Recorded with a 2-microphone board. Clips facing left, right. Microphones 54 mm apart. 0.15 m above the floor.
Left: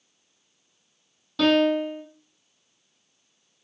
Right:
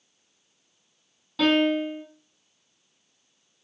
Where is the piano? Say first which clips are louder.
Left 1 dB; 5° right (ahead or behind), 2.5 m.